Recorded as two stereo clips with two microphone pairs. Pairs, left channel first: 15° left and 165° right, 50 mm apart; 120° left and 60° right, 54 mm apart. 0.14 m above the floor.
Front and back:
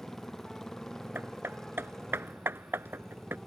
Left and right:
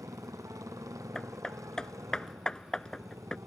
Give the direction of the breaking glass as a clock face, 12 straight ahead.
I don't hear breaking glass.